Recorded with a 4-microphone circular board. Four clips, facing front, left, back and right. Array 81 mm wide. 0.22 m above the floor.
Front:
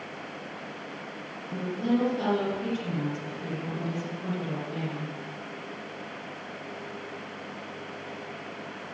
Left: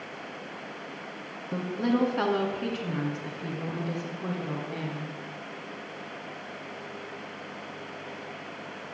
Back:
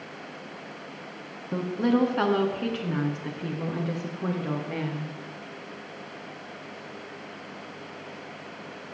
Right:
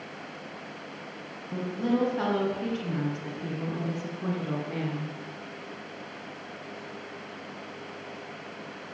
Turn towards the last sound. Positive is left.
turn(degrees=-170)